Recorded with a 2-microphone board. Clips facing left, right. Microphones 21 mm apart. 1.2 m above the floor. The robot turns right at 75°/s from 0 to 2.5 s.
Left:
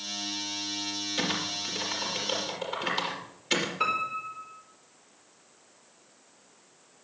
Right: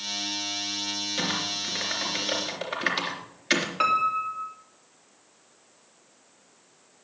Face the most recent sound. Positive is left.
turn(degrees=-65)  # may be behind; listen again after turning